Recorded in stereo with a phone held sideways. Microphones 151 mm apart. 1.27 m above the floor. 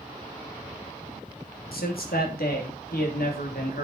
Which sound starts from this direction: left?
A man speaking, at 1.7 s.